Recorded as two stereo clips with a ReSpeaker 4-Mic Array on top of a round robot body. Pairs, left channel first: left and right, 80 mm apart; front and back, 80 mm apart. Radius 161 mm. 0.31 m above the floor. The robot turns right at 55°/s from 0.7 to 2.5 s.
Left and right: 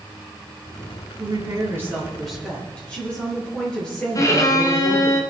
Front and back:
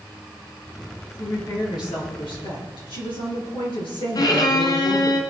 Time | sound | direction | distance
1.2 | a woman speaking | 60° right | 7 m
4.2 | a violin | 40° left | 1.9 m